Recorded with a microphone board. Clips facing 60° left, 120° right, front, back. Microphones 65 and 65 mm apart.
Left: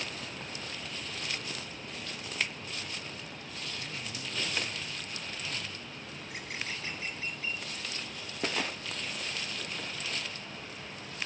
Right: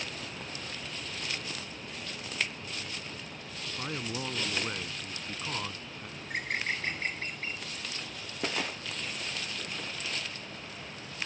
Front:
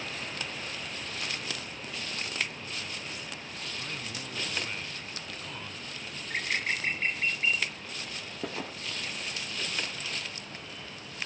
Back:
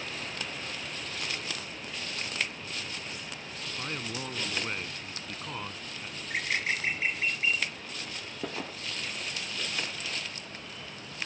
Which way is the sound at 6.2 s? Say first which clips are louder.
Right 7 dB, back 1 dB; 95° right.